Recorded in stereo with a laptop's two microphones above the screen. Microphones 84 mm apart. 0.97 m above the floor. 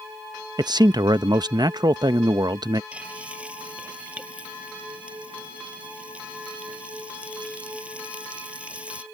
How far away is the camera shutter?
No camera shutter in this recording.